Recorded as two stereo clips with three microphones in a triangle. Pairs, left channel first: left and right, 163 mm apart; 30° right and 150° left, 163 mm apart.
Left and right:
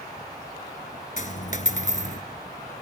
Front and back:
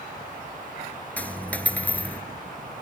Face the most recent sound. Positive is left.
turn(degrees=50)